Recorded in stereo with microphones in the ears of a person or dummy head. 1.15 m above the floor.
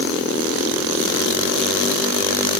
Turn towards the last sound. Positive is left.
No sound to turn to.